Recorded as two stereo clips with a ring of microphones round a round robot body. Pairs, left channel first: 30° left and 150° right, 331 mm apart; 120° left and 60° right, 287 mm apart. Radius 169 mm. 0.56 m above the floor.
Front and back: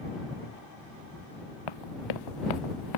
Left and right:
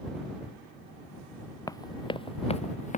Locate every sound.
1.7 s running footsteps: 40° left; by 3.0 s 55° left